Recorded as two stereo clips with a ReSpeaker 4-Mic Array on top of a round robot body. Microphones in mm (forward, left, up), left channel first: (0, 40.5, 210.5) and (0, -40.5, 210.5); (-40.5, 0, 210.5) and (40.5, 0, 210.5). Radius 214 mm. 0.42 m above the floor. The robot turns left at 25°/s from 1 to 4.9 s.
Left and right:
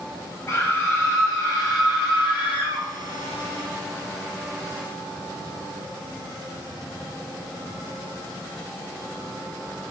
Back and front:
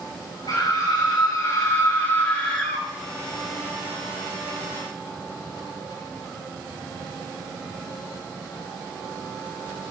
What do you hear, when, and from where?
0.5 s a scream: 140° left, 5 m; by 2.9 s 95° left, 5 m